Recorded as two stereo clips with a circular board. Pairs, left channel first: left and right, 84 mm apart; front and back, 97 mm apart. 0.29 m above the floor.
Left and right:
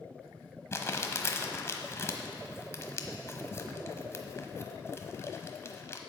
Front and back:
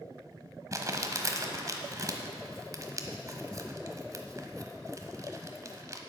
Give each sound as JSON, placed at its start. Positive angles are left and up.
{"t": 0.7, "sound": "crumpling", "azimuth_deg": 135, "distance_m": 1.1}